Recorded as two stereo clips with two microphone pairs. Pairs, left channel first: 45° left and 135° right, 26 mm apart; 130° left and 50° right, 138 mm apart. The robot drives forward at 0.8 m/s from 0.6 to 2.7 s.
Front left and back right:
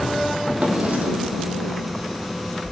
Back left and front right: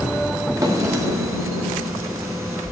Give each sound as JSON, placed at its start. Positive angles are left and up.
{"t": 0.6, "sound": "a drawer", "azimuth_deg": -115, "distance_m": 3.0}